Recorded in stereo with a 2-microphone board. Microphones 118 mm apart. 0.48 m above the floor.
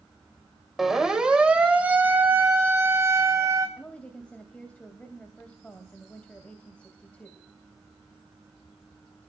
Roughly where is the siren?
Centre.